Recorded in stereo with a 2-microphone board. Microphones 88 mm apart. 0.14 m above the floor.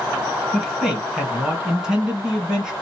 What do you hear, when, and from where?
0.5 s a man speaking: 5° right (ahead or behind), 1.8 m